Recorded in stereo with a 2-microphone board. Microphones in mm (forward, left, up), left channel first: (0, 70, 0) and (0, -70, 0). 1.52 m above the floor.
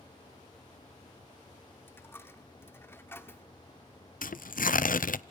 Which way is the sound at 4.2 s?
75° left (ahead or behind).